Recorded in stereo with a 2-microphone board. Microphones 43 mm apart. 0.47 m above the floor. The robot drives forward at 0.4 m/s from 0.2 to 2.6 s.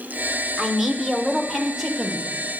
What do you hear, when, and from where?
0.6 s a man speaking: 10° right (ahead or behind), 1.0 m; by 2.3 s 5° right (ahead or behind), 1.5 m